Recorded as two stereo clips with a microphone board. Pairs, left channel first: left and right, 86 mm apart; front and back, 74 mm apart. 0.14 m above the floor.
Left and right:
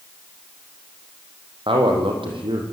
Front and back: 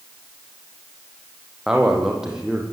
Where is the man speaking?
100° right, 6.5 m.